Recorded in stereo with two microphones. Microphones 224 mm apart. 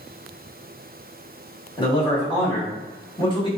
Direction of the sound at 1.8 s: 20° left (ahead or behind).